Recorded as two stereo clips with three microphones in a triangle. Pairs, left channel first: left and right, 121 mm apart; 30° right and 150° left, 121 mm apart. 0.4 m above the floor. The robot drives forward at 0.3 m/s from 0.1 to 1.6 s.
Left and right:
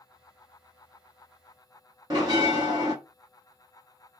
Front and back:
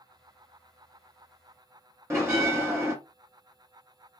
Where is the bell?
140° right, 1.1 m.